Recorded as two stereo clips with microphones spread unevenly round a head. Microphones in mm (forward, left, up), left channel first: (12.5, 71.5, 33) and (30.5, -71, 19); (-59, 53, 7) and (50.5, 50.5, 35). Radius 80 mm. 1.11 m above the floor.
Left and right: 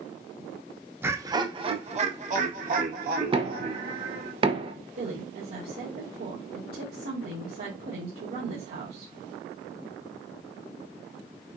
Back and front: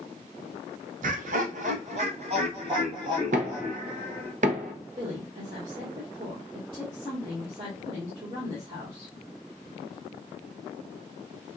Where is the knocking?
35° right, 0.8 m.